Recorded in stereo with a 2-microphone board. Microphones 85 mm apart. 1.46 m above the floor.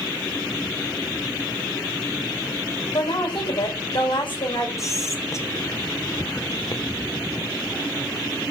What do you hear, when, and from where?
2.9 s a woman speaking: 85° left, 5.5 m
4.8 s whispering: 40° left (ahead or behind), 1.6 m